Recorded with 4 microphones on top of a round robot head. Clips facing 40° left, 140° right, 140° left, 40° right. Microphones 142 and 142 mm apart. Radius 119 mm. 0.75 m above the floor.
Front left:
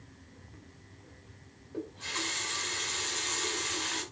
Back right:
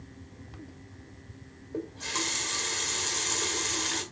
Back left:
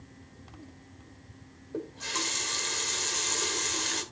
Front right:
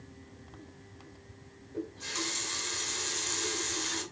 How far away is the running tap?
About 2.5 m.